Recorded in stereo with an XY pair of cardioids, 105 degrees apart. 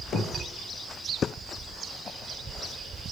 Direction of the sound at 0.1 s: 55° left.